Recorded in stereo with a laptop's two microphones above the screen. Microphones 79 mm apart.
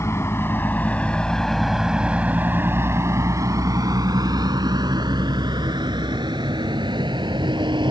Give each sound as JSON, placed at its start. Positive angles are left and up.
{"t": 0.0, "sound": "a vehicle", "side_deg": 40}